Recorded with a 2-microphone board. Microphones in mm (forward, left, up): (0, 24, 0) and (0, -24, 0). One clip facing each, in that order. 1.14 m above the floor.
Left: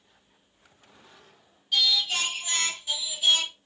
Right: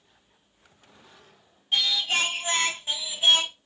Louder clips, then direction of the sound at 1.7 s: Right 1 dB; 35° right (ahead or behind).